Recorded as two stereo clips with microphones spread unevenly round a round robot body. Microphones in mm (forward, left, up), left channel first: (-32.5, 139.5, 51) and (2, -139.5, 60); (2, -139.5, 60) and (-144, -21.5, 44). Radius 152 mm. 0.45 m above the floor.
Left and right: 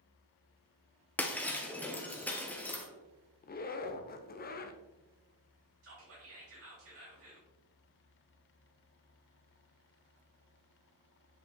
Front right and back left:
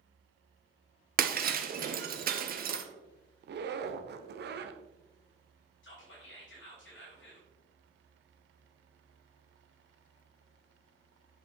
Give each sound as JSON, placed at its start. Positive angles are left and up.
{"t": 1.2, "sound": "breaking glass", "azimuth_deg": 180, "distance_m": 0.9}
{"t": 3.4, "sound": "a zipper", "azimuth_deg": 150, "distance_m": 0.8}
{"t": 5.8, "sound": "whispering", "azimuth_deg": -45, "distance_m": 3.0}